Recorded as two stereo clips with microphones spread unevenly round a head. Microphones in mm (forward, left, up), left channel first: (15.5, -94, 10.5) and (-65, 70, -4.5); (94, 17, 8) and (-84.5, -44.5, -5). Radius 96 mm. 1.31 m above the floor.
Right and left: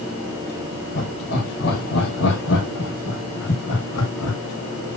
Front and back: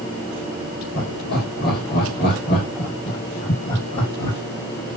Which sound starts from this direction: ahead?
Laughter, at 0.9 s.